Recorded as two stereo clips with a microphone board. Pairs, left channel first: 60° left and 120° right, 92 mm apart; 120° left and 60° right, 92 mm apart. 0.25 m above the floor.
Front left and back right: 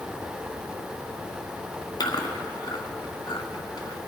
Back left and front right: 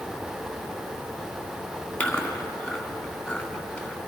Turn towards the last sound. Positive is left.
turn(degrees=55)